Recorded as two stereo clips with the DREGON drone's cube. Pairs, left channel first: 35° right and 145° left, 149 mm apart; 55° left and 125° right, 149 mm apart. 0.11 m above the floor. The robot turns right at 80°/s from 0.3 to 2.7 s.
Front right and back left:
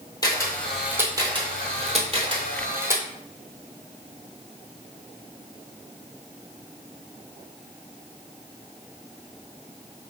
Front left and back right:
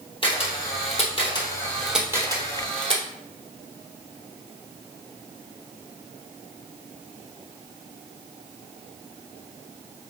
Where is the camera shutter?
20° left, 1.2 m; by 3.0 s 150° right, 1.2 m.